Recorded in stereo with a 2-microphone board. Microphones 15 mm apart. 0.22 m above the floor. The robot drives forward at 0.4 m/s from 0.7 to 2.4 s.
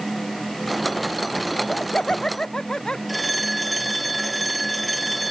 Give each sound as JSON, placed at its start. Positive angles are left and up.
{"t": 1.5, "sound": "laughter", "side_deg": 75}
{"t": 3.1, "sound": "a phone ringing", "side_deg": 0}